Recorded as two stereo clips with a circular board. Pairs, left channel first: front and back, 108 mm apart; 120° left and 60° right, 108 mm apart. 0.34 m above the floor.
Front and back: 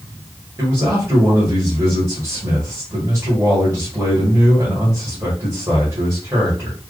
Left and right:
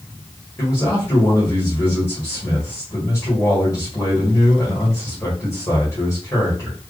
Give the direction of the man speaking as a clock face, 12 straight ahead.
7 o'clock.